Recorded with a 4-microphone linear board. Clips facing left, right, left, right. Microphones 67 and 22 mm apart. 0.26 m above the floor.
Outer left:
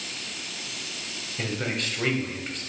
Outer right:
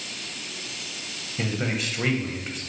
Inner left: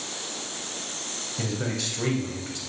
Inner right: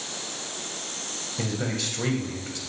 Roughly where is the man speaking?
Centre.